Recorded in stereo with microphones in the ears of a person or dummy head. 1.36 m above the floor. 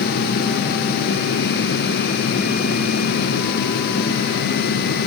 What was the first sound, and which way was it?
Only background noise.